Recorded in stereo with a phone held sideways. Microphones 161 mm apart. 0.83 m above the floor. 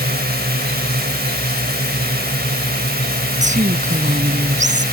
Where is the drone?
70° right (ahead or behind).